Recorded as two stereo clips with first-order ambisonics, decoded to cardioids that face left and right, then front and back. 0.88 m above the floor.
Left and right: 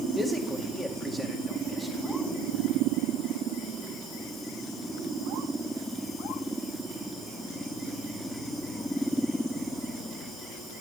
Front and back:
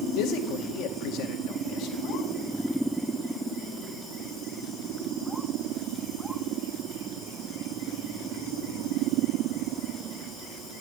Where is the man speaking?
10° right, 1.8 m.